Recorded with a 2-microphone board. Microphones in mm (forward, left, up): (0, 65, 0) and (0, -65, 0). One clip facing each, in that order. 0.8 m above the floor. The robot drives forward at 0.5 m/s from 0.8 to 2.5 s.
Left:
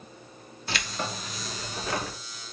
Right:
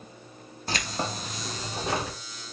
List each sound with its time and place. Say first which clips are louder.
0.7 s keys jangling: right 2 dB; 40° right (ahead or behind), 1.0 m; by 2.2 s 25° right (ahead or behind), 1.5 m